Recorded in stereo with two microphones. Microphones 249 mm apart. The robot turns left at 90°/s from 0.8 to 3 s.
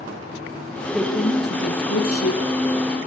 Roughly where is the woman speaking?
Behind.